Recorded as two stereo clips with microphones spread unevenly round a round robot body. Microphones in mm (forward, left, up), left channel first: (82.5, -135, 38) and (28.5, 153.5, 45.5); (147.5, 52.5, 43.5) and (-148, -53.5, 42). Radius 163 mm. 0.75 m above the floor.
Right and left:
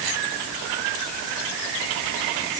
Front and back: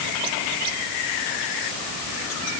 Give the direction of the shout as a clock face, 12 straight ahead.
No shout in this recording.